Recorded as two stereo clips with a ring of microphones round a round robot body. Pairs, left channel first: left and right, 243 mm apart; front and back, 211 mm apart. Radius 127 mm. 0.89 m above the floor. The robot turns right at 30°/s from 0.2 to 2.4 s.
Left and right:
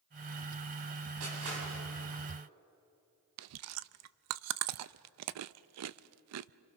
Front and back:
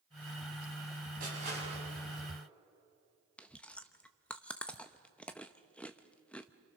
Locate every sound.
1.2 s crushing: 125° right, 7 m; by 2.2 s 90° right, 7 m
3.4 s chewing: 85° right, 0.6 m